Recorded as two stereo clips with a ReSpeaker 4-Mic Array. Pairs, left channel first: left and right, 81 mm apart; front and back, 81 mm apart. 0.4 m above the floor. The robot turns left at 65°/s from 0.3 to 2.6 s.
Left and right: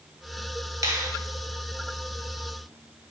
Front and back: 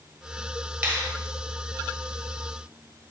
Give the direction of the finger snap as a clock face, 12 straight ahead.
4 o'clock.